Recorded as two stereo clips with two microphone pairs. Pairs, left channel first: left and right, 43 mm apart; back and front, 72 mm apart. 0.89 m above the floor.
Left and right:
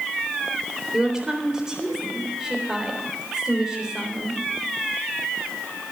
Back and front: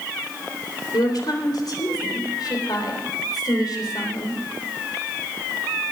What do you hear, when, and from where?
0.9 s a woman speaking: 165° right, 3.5 m